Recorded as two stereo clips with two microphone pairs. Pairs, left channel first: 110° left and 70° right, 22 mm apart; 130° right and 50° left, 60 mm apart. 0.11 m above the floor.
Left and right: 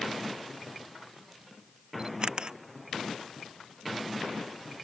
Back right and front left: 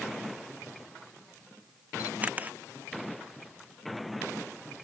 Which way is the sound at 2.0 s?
15° right.